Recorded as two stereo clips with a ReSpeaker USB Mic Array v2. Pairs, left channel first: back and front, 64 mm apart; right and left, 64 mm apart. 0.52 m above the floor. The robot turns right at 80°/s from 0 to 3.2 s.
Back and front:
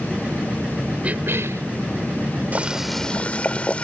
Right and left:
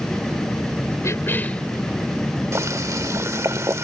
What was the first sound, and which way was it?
A cough, 65° right.